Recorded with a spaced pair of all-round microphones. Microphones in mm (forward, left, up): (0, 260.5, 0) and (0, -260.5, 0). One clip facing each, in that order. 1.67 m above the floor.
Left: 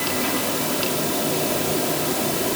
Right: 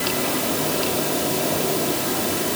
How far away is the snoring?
I don't hear snoring.